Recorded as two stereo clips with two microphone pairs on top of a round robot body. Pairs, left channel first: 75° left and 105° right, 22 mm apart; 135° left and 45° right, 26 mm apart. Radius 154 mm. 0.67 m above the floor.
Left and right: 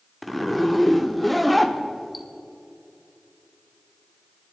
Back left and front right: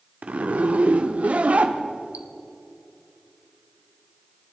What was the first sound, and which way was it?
A zipper, 15° right.